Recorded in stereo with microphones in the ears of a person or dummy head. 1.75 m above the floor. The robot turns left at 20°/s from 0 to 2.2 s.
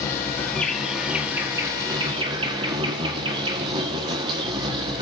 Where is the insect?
15° left, 1.2 m; by 5.0 s 30° right, 1.2 m.